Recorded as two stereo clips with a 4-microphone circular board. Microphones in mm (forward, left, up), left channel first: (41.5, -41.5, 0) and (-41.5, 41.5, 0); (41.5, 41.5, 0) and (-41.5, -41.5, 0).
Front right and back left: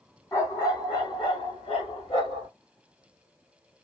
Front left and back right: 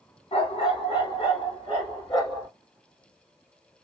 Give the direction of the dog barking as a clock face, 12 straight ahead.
11 o'clock.